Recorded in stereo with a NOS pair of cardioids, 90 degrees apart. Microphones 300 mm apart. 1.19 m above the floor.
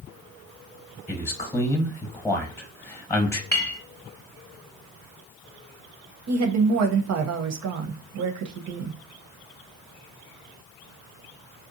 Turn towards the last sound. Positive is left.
turn(degrees=-55)